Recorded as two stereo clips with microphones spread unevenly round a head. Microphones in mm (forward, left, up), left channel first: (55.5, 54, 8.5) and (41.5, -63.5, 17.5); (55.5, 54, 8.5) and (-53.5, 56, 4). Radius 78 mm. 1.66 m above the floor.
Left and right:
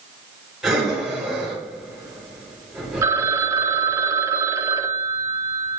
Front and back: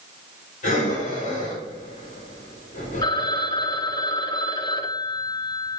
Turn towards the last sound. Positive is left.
turn(degrees=-45)